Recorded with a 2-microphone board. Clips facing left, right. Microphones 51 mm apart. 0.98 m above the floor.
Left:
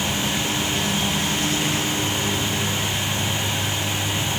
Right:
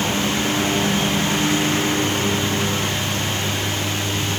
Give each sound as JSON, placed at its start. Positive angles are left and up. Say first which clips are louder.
{"t": 0.0, "sound": "a lawn mower", "louder": "right 3 dB", "side_deg": -30}